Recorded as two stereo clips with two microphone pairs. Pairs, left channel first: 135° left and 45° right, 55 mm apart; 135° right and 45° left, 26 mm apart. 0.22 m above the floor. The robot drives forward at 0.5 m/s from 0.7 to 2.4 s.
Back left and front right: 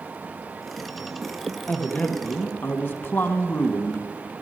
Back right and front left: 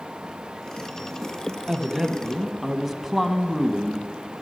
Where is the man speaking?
105° left, 1.1 m; by 4.1 s 130° left, 1.2 m.